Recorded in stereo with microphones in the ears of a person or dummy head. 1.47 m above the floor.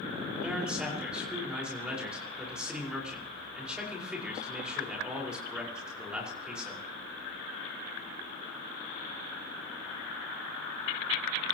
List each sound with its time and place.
0.3 s a man speaking: centre (ahead or behind), 5.5 m